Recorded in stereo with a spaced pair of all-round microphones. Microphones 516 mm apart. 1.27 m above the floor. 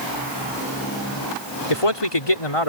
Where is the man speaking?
85° left.